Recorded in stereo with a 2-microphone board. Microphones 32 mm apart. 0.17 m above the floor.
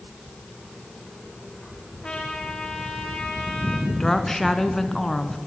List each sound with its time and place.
2.0 s a trumpet: 25° left (ahead or behind), 5.5 m
3.9 s a woman speaking: 10° left (ahead or behind), 2 m